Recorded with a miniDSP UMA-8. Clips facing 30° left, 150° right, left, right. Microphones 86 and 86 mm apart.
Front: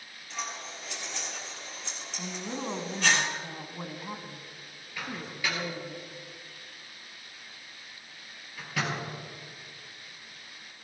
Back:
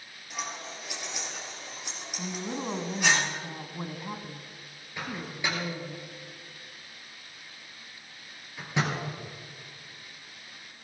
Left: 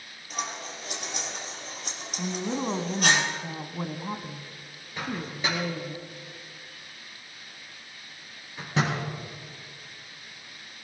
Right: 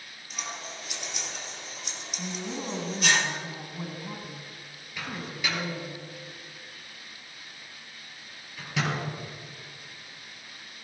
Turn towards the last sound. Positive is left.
turn(degrees=145)